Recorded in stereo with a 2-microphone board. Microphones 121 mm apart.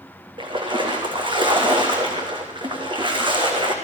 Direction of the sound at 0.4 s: 40° right (ahead or behind).